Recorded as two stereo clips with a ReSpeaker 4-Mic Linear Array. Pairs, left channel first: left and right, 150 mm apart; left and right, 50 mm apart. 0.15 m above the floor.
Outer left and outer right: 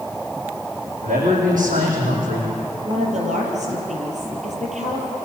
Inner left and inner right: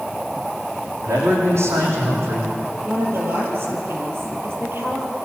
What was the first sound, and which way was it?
A man speaking, 70° right (ahead or behind).